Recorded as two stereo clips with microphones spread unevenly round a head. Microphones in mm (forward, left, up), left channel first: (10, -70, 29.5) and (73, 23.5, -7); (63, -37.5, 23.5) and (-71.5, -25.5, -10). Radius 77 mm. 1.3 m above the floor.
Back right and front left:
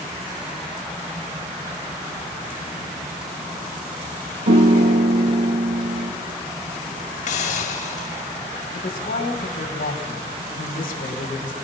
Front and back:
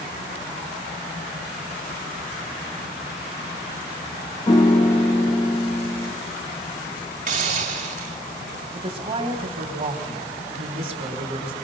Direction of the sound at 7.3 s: 155° right.